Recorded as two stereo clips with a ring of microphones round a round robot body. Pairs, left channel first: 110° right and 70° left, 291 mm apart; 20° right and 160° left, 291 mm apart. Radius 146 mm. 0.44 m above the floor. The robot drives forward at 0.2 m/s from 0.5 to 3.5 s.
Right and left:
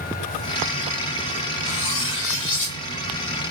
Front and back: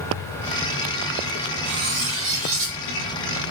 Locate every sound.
1.6 s cutlery clinking: 155° right, 0.6 m; by 2.8 s 160° right, 0.8 m